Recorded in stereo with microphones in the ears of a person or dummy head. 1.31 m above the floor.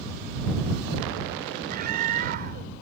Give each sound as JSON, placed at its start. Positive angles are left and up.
{"t": 1.7, "sound": "a scream", "side_deg": -50}